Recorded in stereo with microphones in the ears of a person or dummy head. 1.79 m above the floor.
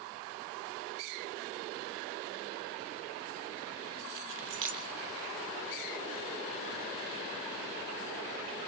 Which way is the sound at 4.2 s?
60° right (ahead or behind).